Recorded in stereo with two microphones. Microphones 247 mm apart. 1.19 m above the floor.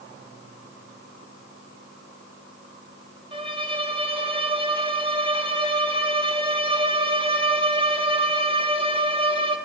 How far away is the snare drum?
No snare drum in this recording.